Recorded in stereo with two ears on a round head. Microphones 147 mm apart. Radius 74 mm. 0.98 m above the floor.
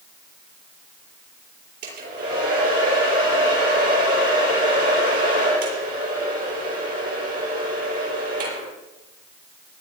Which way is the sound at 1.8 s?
55° right (ahead or behind).